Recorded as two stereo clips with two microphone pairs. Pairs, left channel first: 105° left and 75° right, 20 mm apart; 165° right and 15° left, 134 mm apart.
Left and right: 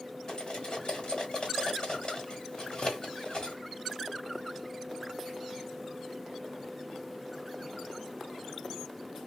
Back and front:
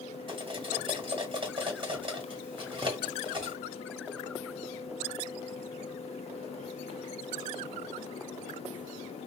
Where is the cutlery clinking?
65° left, 1.8 m.